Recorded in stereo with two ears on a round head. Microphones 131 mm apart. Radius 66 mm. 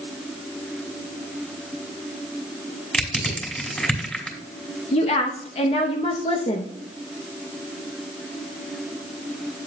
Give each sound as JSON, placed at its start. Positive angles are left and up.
{"t": 2.9, "sound": "crushing", "side_deg": 5, "distance_m": 3.0}
{"t": 4.9, "sound": "a woman speaking", "side_deg": 40, "distance_m": 0.9}